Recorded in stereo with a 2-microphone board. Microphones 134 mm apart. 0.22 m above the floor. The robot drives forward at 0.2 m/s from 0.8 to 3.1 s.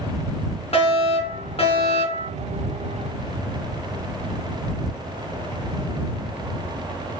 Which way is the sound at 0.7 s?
50° left (ahead or behind).